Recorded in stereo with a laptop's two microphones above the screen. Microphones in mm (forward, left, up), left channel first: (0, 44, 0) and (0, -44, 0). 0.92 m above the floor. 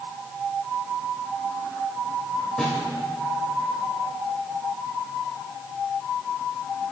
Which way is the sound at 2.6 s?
5° left (ahead or behind).